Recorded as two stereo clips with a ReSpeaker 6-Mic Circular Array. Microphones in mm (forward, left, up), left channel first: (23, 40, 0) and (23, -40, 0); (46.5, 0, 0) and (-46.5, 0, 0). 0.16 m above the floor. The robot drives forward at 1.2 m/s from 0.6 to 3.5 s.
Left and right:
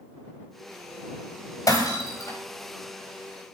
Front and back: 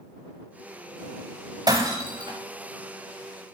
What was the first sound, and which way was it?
Breaking glass, 140° left.